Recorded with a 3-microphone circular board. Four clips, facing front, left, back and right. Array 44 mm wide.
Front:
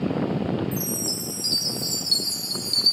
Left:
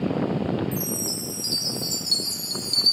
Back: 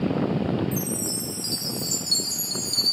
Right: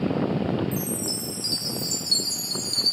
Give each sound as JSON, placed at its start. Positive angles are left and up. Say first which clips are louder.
{"t": 0.7, "sound": "a chime", "louder": "even, even", "azimuth_deg": 35, "distance_m": 1.1}